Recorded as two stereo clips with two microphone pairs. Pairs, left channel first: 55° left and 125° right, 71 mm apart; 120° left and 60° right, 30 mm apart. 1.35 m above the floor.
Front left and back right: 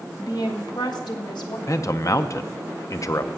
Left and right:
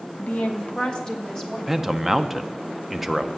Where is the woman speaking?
90° left, 1.1 m; by 1.6 s 45° left, 1.8 m.